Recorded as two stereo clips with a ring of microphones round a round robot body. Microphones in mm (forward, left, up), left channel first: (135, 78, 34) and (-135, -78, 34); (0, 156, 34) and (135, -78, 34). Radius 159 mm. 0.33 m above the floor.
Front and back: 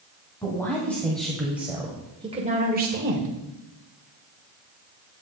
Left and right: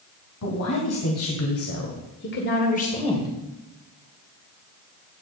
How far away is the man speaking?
About 2.5 m.